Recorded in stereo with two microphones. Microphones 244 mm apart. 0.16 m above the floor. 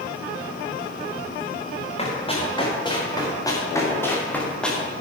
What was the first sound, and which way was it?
Running footsteps, 25° left (ahead or behind).